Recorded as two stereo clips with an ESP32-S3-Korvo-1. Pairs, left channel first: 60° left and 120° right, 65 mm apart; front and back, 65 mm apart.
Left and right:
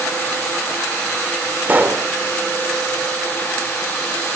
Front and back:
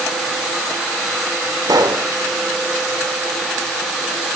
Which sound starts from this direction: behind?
A pop, at 1.7 s.